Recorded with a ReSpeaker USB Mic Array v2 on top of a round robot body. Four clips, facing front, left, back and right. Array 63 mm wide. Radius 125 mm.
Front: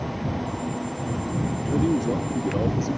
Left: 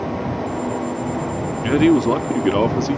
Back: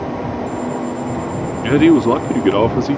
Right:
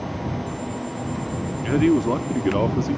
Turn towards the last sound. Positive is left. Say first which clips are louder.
# left 4 dB, back 13 dB
turn(degrees=165)